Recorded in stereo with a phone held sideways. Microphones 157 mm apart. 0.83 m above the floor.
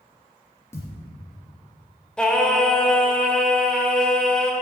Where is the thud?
15° left (ahead or behind), 3.5 m.